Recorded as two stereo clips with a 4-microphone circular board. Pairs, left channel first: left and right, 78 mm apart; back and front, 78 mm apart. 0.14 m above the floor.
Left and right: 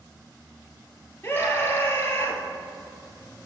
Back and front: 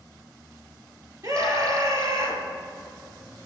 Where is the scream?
35° left, 2.5 m.